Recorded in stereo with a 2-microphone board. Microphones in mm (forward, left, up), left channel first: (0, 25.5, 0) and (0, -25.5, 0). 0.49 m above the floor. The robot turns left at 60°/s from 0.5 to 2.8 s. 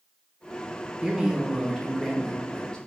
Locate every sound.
1.0 s a man speaking: 15° right (ahead or behind), 0.8 m; by 2.8 s 15° left (ahead or behind), 0.8 m